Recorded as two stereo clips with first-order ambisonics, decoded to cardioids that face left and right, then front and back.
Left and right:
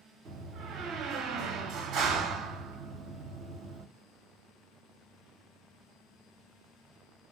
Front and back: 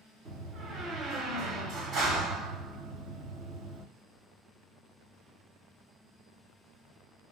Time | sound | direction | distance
0.2 | a door slam | 130° right | 1.2 m